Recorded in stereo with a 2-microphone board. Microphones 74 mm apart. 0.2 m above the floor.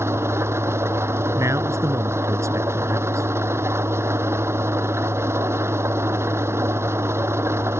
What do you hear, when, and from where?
0.0 s an engine running: 35° right (ahead or behind)
1.4 s a man speaking: 40° right (ahead or behind)